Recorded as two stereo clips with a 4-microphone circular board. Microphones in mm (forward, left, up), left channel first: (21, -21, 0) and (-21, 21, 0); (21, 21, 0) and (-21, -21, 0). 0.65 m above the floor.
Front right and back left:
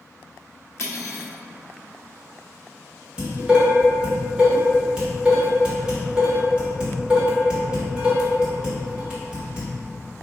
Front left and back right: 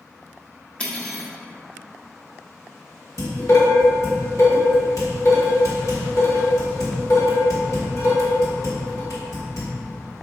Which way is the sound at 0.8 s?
20° right.